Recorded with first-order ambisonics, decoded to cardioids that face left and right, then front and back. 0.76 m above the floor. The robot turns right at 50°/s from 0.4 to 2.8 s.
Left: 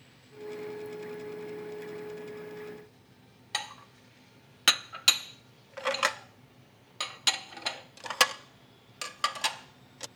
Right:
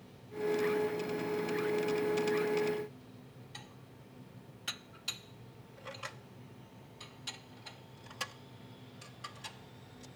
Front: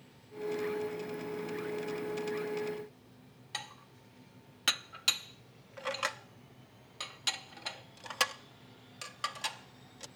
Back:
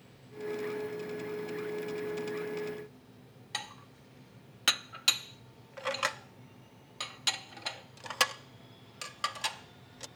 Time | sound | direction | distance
3.5 | dishes clattering | 100° left | ?